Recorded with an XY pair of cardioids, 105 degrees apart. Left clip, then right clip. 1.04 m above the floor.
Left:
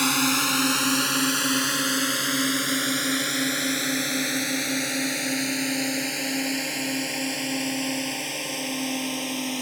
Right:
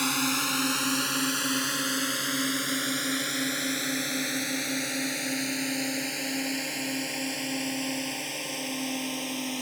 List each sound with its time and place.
0.0 s a drone: 35° left; by 9.6 s 30° left